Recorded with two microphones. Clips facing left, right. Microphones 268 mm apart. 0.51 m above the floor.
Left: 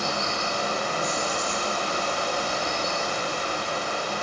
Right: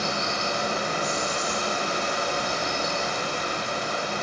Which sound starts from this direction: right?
Running water, at 0.0 s.